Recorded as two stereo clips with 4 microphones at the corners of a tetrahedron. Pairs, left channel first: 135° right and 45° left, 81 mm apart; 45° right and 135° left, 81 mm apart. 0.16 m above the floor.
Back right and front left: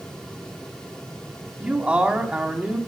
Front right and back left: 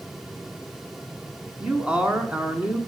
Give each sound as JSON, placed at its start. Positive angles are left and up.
{"t": 1.6, "sound": "a man speaking", "azimuth_deg": 90, "distance_m": 1.0}